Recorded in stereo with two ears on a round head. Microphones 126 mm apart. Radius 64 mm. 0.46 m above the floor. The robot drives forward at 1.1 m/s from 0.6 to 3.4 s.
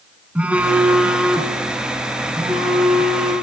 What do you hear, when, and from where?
0.3 s a phone buzzing: 10° right (ahead or behind), 1.8 m; by 3.3 s 5° right (ahead or behind), 5 m